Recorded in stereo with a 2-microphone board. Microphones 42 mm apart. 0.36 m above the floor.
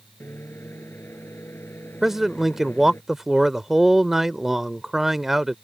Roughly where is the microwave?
Left.